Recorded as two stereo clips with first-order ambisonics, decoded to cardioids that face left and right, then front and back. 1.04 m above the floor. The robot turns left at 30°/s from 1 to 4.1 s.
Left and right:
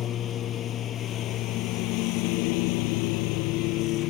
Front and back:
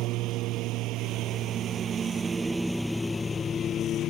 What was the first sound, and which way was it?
A lawn mower, 145° left.